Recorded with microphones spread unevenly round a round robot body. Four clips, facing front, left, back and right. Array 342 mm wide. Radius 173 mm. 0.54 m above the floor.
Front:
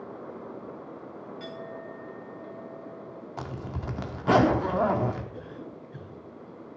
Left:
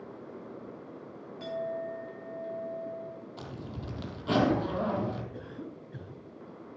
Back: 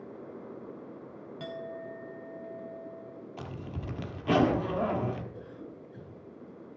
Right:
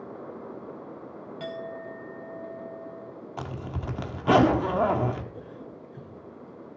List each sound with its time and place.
1.4 s a clink: 140° right, 2.5 m
3.4 s a zipper: 60° right, 1.5 m
5.3 s a cough: 65° left, 8.5 m